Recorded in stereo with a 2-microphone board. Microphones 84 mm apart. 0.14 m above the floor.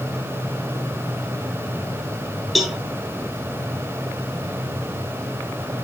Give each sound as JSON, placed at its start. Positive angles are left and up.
{"t": 2.5, "sound": "a cowbell", "side_deg": 0, "distance_m": 1.3}